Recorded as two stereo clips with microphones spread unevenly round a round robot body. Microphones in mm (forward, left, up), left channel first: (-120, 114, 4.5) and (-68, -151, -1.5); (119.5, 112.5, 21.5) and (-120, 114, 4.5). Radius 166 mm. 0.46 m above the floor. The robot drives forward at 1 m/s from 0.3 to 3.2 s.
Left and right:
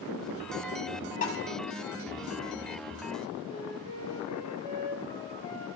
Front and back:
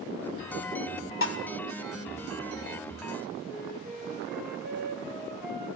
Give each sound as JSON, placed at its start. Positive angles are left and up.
{"t": 1.2, "sound": "dishes clattering", "azimuth_deg": 35, "distance_m": 2.0}
{"t": 3.5, "sound": "a flute", "azimuth_deg": 125, "distance_m": 3.5}